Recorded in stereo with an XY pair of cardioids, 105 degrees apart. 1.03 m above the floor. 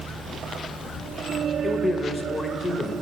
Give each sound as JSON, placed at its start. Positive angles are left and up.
{"t": 1.6, "sound": "a man speaking", "azimuth_deg": 25, "distance_m": 0.9}